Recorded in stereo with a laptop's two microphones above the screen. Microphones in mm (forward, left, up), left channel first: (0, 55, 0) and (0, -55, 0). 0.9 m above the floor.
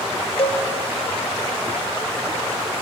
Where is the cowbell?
60° left (ahead or behind), 0.7 m.